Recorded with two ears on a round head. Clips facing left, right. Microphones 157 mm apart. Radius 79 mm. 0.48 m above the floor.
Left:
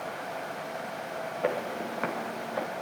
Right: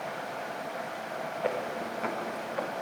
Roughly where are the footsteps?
Left.